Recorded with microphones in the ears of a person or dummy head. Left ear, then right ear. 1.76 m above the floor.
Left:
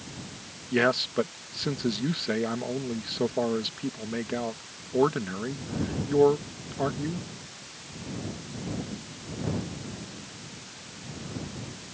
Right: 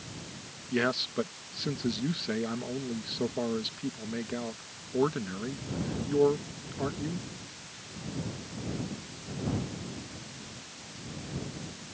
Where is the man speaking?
15° left (ahead or behind).